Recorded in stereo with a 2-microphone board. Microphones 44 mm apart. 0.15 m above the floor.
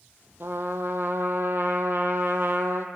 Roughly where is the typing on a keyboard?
I don't hear typing on a keyboard.